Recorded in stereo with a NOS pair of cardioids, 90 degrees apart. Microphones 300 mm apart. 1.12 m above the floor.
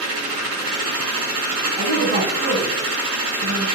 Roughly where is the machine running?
Ahead right.